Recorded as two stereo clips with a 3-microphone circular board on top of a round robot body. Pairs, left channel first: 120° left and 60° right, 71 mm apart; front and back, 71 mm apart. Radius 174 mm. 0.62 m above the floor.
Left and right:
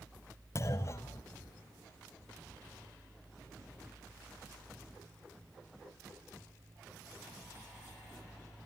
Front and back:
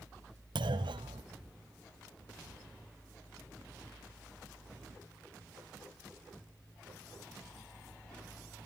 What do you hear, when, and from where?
0.6 s a clunk: 175° left, 0.7 m